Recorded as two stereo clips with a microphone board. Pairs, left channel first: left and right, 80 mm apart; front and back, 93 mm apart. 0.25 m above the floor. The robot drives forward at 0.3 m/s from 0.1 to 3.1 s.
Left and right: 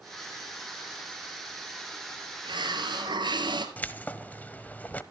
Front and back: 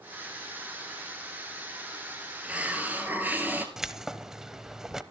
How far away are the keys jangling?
About 0.9 m.